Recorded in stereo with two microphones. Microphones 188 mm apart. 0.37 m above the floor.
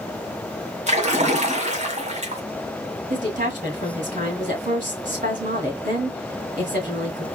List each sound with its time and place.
0.9 s a splash: 40° right (ahead or behind), 1.4 m
3.1 s a woman speaking: 45° right (ahead or behind), 2 m